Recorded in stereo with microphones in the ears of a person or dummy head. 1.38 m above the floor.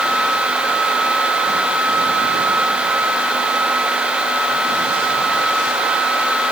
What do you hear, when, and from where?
Only background noise.